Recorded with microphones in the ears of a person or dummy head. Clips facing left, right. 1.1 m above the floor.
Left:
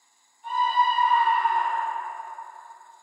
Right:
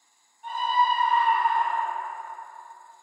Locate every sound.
0.4 s a scream: 45° right (ahead or behind), 1.4 m; by 2.0 s 20° left (ahead or behind), 0.5 m